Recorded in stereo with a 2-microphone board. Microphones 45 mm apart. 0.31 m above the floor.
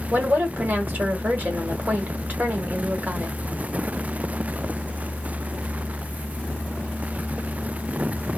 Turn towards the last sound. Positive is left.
turn(degrees=-40)  # may be behind; listen again after turning